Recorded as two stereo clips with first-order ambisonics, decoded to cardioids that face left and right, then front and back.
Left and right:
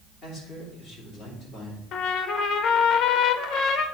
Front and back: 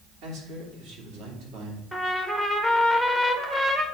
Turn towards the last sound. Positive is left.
turn(degrees=100)